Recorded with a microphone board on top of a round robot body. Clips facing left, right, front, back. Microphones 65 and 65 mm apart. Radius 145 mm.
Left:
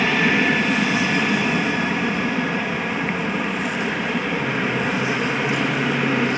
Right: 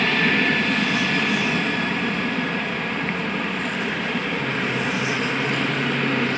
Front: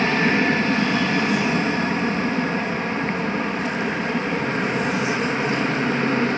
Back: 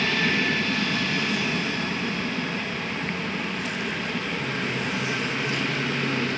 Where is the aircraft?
15° left.